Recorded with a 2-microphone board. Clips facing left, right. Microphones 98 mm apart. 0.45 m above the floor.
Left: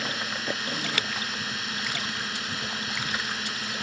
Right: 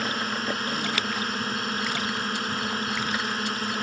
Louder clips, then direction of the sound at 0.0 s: Right 4 dB; 45° right (ahead or behind).